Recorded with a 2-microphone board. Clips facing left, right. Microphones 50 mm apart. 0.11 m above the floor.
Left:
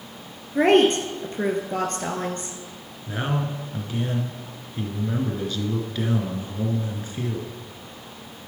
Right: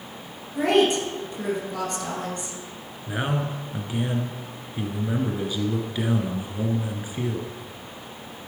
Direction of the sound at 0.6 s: 45° left (ahead or behind).